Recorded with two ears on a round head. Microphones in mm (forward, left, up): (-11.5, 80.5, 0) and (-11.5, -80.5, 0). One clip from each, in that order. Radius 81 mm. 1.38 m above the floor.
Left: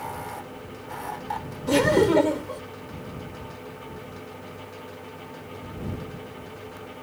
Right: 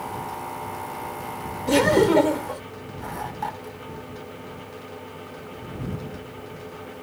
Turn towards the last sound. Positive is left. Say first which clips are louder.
# right 2 dB
turn(degrees=-5)  # may be behind; listen again after turning